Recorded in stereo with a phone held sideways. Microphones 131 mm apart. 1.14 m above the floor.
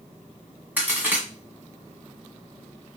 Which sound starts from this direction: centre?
A crack, at 0.8 s.